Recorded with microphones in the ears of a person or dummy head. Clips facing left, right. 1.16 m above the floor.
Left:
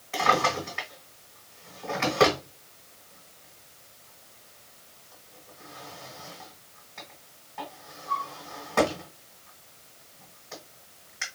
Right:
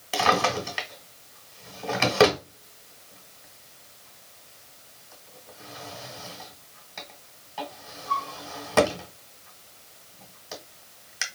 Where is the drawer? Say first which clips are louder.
Right 2 dB; 45° right (ahead or behind), 1.6 m.